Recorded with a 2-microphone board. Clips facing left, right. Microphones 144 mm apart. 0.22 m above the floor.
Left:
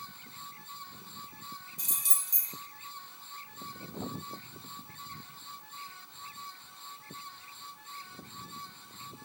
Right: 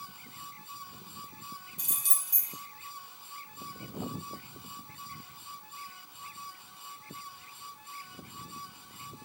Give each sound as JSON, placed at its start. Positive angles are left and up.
{"t": 1.8, "sound": "keys jangling", "side_deg": -65, "distance_m": 1.7}